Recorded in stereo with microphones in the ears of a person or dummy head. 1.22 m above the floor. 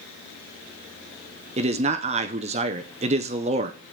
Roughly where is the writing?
I don't hear writing.